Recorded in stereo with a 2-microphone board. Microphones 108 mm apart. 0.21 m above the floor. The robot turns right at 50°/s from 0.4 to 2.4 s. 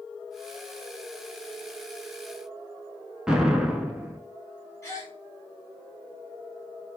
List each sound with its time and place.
3.3 s an explosion: 5° right (ahead or behind), 0.5 m
4.8 s a gasp: 25° left (ahead or behind), 0.9 m